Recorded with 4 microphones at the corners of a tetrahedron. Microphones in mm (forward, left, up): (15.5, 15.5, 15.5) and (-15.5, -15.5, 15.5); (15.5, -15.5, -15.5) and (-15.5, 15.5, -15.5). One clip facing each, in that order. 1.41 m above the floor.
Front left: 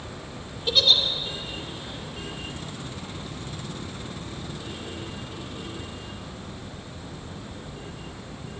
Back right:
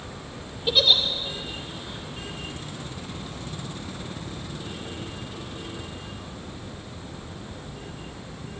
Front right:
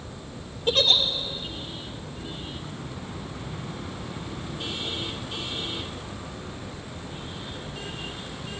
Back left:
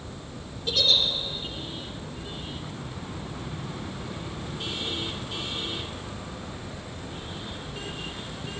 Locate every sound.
0.7 s a giggle: 60° right, 0.8 m